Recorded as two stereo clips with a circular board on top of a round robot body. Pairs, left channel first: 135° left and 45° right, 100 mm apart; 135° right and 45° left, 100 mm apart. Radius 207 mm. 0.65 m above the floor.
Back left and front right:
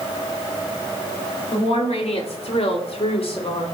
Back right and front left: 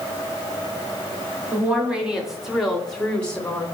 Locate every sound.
1.5 s a woman speaking: 120° left, 3.5 m; by 3.6 s 150° left, 2.5 m